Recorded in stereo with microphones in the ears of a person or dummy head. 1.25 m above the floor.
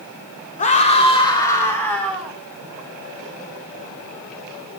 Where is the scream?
40° left (ahead or behind), 3.5 m; by 2.4 s centre (ahead or behind), 4.5 m.